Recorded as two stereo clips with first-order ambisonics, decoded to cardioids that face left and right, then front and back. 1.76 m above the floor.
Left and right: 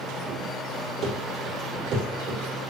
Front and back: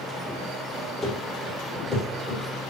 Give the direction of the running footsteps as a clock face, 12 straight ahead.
2 o'clock.